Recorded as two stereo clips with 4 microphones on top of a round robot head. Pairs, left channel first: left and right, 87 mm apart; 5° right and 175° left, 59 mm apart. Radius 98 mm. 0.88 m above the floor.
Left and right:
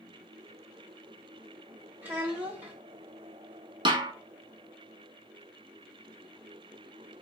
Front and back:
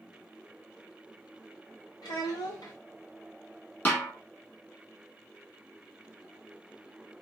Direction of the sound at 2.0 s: 20° right.